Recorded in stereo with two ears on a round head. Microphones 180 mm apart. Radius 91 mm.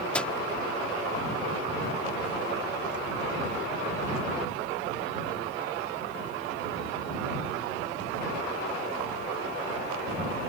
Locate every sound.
0.1 s a microwave: 5° left (ahead or behind)